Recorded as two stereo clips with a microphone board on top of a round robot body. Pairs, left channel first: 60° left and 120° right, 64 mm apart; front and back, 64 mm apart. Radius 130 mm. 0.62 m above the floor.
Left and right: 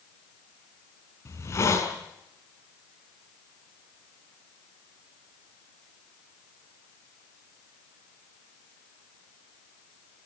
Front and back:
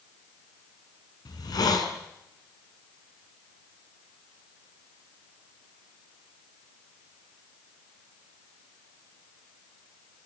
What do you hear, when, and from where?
1.2 s a hiss: 15° left, 5.5 m